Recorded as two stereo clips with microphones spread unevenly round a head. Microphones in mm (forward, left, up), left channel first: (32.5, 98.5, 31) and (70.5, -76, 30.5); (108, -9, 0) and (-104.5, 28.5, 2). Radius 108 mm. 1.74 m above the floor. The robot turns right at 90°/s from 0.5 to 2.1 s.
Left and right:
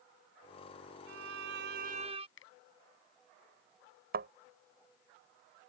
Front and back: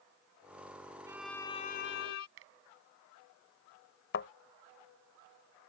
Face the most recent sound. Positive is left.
turn(degrees=-50)